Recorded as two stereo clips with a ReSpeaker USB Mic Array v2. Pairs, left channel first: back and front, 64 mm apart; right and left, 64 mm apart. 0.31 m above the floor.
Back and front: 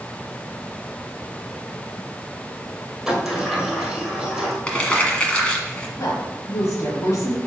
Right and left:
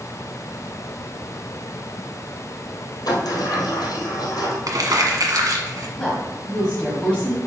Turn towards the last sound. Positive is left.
turn(degrees=-165)